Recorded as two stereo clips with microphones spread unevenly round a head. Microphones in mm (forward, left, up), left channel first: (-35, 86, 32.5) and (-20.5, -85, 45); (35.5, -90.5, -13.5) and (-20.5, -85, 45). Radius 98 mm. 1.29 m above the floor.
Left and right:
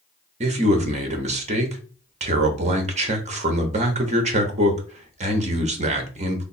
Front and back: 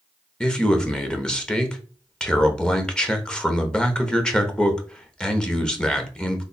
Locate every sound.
0.4 s a man speaking: 35° right, 0.9 m